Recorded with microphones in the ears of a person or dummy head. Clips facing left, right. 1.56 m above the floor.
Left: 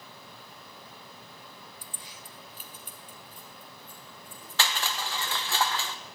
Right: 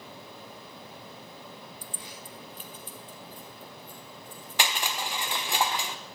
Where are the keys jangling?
45° right (ahead or behind), 0.6 m; by 5.1 s 25° left (ahead or behind), 3.5 m.